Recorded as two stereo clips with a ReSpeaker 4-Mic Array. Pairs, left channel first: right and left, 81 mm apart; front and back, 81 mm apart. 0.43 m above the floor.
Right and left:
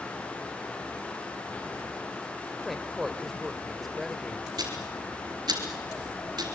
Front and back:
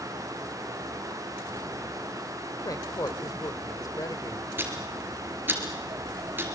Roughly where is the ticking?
Behind left.